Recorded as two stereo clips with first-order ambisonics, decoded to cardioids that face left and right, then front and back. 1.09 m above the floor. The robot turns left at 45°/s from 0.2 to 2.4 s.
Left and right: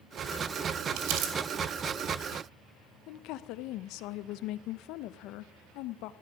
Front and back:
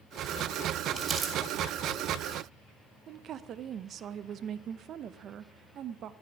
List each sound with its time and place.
1.0 s crumpling: 105° right, 2.5 m; by 1.3 s 120° right, 2.5 m
3.1 s a woman speaking: 125° left, 0.5 m